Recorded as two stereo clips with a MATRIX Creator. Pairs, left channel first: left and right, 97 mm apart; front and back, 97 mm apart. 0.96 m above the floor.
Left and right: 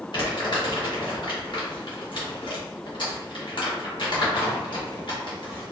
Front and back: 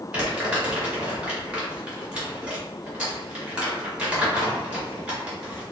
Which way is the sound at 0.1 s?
105° left.